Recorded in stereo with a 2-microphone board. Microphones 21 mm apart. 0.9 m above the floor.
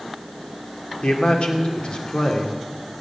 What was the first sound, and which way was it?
A man speaking, 60° left (ahead or behind).